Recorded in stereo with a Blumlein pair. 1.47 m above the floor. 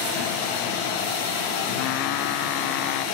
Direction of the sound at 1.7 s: 40° left.